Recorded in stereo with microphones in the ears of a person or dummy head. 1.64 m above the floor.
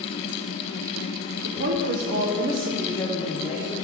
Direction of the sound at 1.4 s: 65° right (ahead or behind).